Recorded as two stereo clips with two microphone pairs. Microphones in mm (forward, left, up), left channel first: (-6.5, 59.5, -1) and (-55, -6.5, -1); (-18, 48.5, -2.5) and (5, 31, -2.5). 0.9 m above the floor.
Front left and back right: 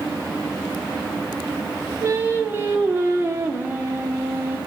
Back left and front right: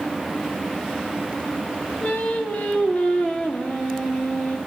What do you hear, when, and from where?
2.0 s singing: 175° left, 2 m